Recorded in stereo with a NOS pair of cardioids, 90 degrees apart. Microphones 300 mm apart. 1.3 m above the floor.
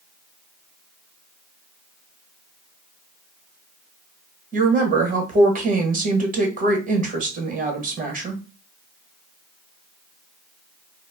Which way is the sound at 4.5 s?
30° right.